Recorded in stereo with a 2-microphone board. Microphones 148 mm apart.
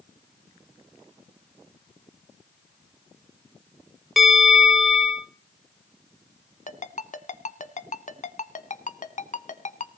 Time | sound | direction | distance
4.2 | a bell | centre (ahead or behind) | 2 m
6.7 | a ringtone | 60° left (ahead or behind) | 1.0 m